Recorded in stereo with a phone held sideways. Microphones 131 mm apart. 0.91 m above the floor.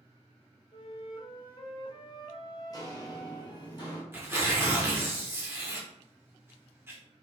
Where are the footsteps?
30° left (ahead or behind), 1.0 m; by 4.0 s 35° left (ahead or behind), 1.2 m.